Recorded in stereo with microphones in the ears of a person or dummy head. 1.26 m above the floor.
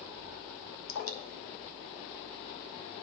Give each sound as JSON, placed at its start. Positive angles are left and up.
{"t": 0.9, "sound": "dripping", "side_deg": 85, "distance_m": 1.0}